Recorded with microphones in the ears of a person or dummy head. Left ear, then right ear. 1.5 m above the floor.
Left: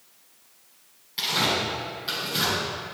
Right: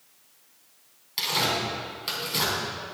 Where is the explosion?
I don't hear an explosion.